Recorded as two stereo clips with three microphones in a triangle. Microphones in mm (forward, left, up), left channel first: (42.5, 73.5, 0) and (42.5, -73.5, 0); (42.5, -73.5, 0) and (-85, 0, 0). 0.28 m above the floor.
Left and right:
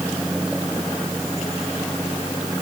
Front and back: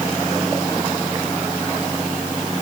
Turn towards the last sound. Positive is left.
No sound to turn to.